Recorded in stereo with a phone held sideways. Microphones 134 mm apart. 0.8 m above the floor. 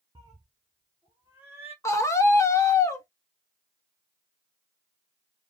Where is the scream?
20° left (ahead or behind), 1.0 m.